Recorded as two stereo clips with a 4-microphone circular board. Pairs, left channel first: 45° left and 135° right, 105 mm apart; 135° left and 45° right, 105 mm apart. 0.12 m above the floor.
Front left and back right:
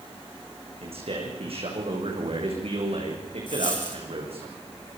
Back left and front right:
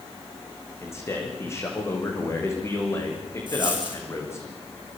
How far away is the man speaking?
About 7.5 m.